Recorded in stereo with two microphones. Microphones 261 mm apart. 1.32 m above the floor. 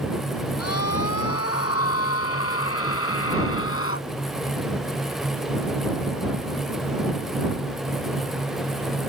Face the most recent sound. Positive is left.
turn(degrees=55)  # may be behind; listen again after turning